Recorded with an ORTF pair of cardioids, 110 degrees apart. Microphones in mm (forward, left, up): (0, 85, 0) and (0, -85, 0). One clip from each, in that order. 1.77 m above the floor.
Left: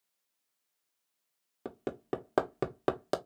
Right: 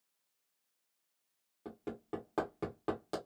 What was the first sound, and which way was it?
Hammering, 60° left.